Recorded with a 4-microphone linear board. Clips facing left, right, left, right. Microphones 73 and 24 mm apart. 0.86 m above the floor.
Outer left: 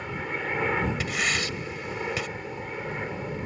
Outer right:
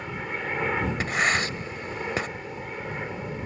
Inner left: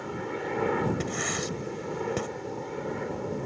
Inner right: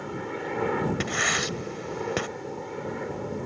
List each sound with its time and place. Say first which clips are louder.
0.0 s a helicopter: even, even; centre (ahead or behind)
1.0 s writing: outer right 4 dB, inner right 5 dB; 40° right (ahead or behind)